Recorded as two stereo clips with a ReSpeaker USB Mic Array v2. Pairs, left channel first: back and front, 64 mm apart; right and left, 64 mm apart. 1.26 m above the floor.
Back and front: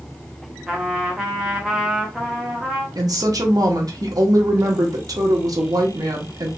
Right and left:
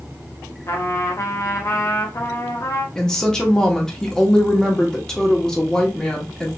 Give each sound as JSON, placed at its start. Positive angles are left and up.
{"t": 0.7, "sound": "a trumpet", "azimuth_deg": -80, "distance_m": 1.0}
{"t": 3.0, "sound": "a woman speaking", "azimuth_deg": -10, "distance_m": 1.1}